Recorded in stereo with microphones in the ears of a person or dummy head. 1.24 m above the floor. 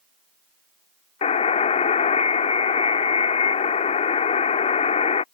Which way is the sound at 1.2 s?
35° left (ahead or behind).